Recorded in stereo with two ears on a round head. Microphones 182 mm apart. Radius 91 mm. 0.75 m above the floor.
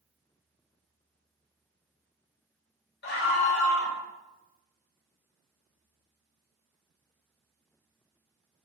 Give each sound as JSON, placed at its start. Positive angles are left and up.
{"t": 3.0, "sound": "a scream", "side_deg": 60, "distance_m": 4.0}